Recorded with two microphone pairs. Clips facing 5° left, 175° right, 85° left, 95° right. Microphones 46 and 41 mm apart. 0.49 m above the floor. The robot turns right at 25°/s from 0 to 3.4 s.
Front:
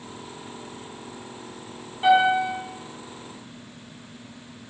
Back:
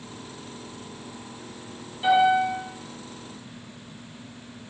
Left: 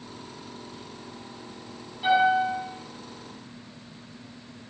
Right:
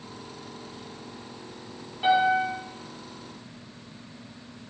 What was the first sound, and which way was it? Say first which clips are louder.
A piano: front 1 dB, left 1 dB; 35° right.